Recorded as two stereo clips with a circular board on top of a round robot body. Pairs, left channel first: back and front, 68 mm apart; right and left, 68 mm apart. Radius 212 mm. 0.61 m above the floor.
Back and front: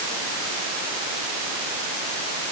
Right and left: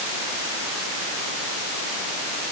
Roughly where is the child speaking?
No child speaking in this recording.